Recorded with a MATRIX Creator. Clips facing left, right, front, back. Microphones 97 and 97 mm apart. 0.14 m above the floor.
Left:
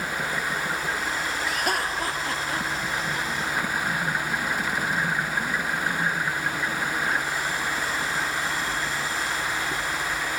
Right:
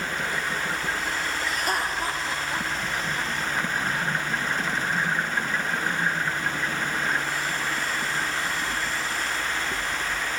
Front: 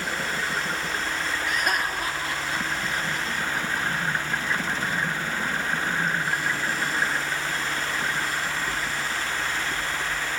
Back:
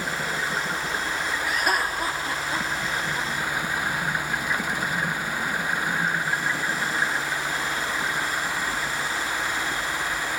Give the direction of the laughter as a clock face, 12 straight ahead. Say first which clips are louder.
Left 1 dB, back 2 dB; 9 o'clock.